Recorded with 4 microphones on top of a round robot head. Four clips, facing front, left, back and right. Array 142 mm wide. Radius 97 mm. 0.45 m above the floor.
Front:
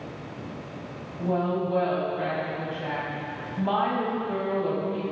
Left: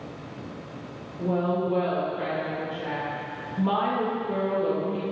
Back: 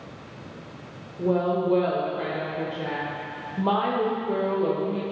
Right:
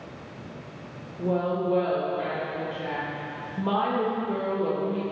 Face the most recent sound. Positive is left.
turn(degrees=-175)